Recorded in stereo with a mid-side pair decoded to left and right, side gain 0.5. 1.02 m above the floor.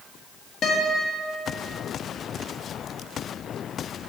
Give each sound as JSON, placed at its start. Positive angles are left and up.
{"t": 0.6, "sound": "a guitar", "azimuth_deg": 55, "distance_m": 1.4}